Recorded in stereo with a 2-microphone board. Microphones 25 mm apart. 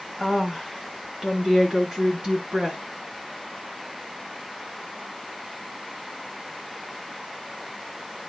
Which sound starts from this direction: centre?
A woman speaking, at 0.2 s.